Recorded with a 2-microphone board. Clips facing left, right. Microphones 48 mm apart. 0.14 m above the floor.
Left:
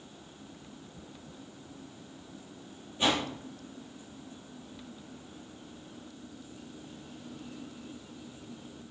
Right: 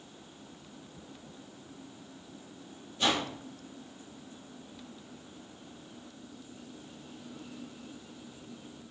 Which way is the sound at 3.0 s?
20° left (ahead or behind).